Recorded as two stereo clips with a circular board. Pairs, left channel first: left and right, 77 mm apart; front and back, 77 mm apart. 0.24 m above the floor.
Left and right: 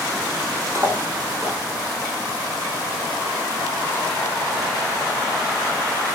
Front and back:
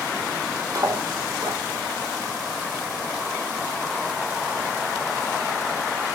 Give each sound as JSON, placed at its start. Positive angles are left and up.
{"t": 0.8, "sound": "cutlery clinking", "azimuth_deg": -145, "distance_m": 4.0}